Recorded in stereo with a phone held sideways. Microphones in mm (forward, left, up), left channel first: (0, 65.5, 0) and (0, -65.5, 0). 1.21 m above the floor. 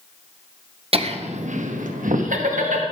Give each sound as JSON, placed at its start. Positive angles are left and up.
{"t": 0.9, "sound": "laughter", "side_deg": -45, "distance_m": 0.9}